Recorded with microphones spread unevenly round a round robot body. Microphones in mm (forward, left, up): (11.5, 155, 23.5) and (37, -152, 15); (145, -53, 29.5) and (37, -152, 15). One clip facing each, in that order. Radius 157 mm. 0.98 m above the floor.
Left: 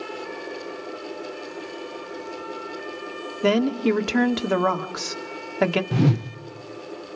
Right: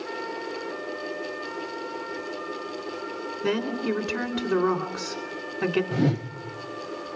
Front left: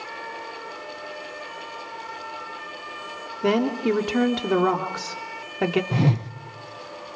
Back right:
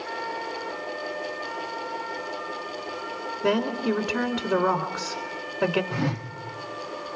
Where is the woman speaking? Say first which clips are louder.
Left 6 dB, front left 3 dB; 90° left, 2 m.